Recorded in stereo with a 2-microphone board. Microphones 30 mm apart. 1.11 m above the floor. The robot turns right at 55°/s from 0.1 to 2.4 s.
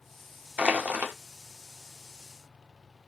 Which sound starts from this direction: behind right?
Crushing, at 0.6 s.